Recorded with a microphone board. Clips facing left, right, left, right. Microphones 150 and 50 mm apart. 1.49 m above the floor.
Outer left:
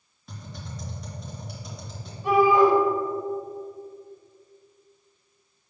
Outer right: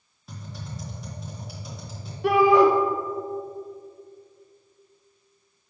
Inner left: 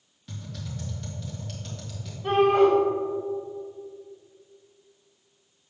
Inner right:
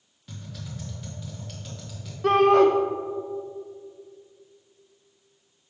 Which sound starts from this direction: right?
A shout, at 2.2 s.